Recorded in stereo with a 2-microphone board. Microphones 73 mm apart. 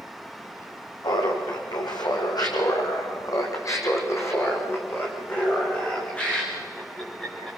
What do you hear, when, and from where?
1.0 s laughter: 80° left, 5.5 m; by 7.6 s 5° left (ahead or behind), 7.5 m